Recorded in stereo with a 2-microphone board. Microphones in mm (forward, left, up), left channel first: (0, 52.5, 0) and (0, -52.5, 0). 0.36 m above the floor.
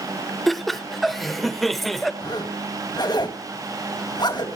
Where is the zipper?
40° left (ahead or behind), 2 m.